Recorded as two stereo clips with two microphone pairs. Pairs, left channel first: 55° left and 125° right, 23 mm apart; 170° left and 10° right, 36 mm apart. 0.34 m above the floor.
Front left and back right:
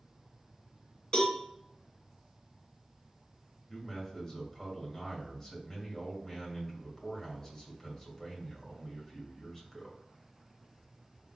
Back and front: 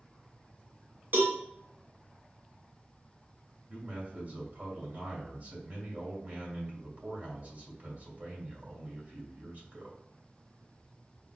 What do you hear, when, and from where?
1.1 s a cowbell: 5° left, 1.4 m
3.7 s a man speaking: 10° right, 2 m